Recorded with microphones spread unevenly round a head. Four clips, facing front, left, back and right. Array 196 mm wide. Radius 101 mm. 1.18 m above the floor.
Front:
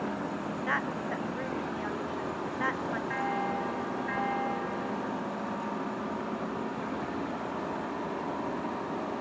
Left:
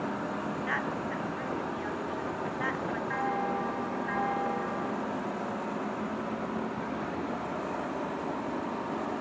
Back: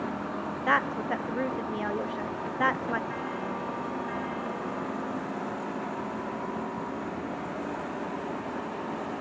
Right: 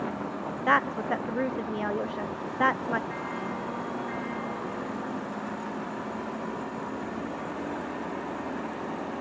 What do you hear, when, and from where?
0.7 s a woman speaking: 120° right, 0.7 m
3.1 s a bell: 60° left, 1.8 m